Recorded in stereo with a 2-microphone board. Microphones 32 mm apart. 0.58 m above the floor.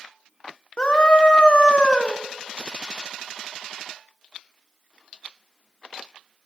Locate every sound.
0.8 s a scream: 30° left (ahead or behind), 1.2 m